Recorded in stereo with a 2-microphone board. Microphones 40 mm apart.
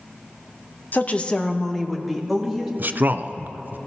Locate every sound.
0.9 s a woman speaking: 50° left (ahead or behind), 0.7 m; by 2.7 s 5° right (ahead or behind), 2.5 m
2.8 s a man speaking: 55° right (ahead or behind), 0.5 m